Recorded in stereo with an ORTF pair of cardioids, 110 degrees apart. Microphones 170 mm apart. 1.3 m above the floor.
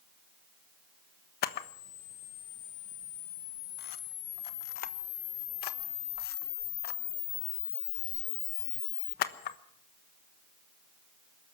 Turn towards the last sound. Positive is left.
turn(degrees=70)